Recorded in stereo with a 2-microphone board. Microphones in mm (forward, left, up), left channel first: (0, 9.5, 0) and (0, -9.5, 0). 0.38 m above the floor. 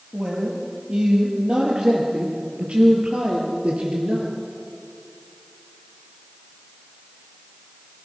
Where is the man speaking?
45° right (ahead or behind), 8.5 m; by 4.3 s 80° right, 6.5 m.